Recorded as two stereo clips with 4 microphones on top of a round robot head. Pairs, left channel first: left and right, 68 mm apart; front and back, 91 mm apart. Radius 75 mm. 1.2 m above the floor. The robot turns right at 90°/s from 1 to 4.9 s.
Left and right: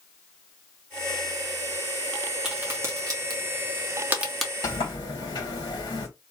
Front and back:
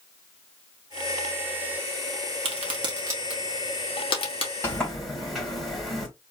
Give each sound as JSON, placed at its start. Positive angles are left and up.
{"t": 2.5, "sound": "a crack", "azimuth_deg": -175, "distance_m": 1.2}
{"t": 4.6, "sound": "a sliding door", "azimuth_deg": 65, "distance_m": 2.0}